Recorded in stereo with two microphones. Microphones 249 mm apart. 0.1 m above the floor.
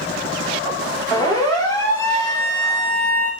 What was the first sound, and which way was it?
A siren, 15° left (ahead or behind).